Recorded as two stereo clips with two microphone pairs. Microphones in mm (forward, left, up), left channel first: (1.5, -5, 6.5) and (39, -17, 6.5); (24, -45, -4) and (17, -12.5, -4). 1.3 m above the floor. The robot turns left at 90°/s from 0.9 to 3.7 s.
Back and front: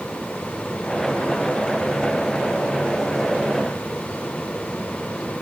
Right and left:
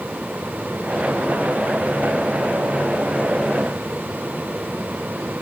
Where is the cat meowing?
I don't hear a cat meowing.